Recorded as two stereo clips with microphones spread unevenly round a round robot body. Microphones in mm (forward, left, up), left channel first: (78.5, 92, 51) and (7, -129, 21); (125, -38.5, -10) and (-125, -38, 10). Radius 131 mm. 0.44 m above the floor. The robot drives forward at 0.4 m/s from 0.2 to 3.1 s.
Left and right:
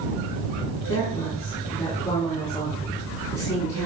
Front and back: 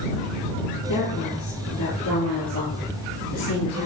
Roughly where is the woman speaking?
Ahead.